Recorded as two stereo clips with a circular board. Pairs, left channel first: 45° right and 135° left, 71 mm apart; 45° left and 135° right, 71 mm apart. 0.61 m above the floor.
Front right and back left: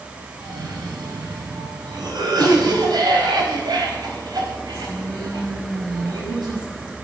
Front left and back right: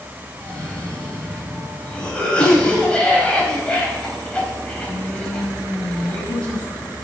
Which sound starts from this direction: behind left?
A cough, at 0.4 s.